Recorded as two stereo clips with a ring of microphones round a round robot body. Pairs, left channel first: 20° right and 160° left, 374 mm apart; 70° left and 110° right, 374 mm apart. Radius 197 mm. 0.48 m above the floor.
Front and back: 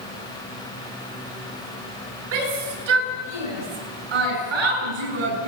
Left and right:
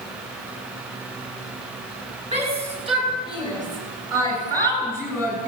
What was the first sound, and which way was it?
A shout, 175° left.